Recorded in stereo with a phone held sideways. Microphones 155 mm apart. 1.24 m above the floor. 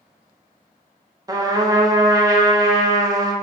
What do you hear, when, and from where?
1.3 s a trumpet: 25° right (ahead or behind), 0.6 m